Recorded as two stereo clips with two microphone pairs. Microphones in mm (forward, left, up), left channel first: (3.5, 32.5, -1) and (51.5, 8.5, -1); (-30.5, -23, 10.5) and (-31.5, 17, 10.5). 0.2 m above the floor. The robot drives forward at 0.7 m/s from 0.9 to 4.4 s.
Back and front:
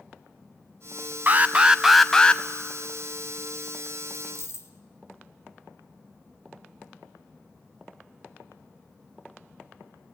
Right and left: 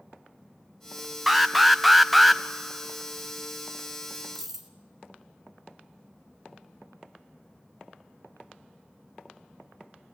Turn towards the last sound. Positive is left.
turn(degrees=170)